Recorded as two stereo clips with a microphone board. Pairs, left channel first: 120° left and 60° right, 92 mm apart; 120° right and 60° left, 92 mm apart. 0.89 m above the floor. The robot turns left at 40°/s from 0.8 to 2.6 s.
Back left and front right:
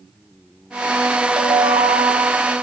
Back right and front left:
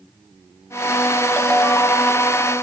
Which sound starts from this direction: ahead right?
A ringtone, at 1.4 s.